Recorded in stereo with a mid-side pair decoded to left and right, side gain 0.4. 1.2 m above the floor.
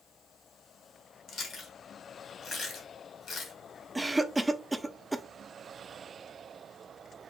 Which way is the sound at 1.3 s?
60° left.